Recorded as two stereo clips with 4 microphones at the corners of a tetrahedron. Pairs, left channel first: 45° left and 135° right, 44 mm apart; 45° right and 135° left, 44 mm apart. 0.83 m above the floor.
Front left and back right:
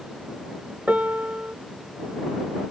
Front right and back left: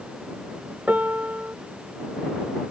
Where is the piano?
Straight behind.